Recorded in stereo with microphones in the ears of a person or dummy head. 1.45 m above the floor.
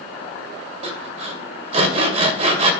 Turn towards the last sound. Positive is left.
turn(degrees=-30)  # may be behind; listen again after turning